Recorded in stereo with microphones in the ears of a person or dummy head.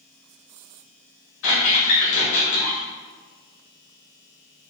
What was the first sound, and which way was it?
A squeak, 60° left (ahead or behind).